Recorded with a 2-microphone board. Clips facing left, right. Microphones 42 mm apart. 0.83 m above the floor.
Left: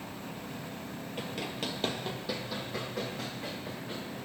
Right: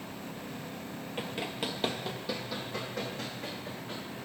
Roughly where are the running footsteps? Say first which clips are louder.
Right 1 dB; right.